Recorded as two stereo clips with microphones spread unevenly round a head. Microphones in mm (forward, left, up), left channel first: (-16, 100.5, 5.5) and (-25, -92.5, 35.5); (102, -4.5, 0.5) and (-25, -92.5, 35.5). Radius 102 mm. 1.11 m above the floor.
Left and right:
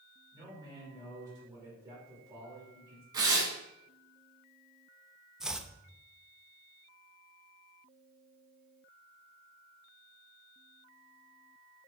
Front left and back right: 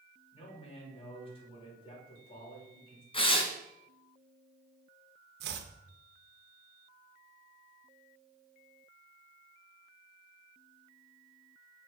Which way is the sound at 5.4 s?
Straight behind.